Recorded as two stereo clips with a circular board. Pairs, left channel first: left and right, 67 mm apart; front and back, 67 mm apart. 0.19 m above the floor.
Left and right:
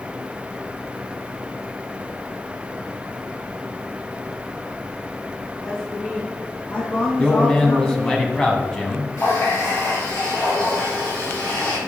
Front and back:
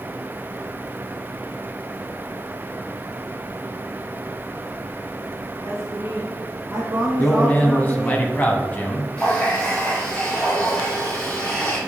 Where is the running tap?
65° left, 3 m.